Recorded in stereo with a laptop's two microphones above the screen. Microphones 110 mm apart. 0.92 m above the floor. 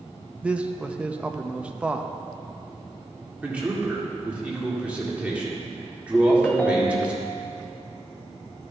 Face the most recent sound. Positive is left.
turn(degrees=10)  # may be behind; listen again after turning